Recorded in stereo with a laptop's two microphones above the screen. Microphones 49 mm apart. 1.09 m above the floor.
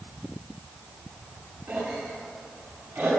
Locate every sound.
1.7 s a cough: 65° right (ahead or behind), 9 m